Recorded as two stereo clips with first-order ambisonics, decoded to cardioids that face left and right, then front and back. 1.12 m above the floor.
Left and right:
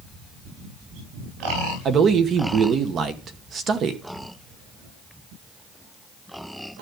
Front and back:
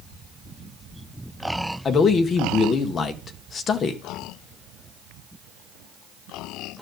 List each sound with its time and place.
1.9 s a man speaking: 50° right, 0.9 m